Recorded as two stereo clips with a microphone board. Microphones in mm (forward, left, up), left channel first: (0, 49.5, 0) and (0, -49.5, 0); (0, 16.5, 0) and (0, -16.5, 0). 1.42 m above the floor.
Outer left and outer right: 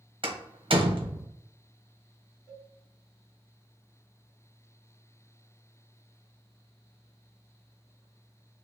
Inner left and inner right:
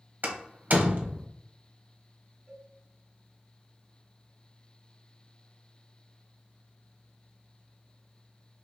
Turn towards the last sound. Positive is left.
turn(degrees=30)  # may be behind; listen again after turning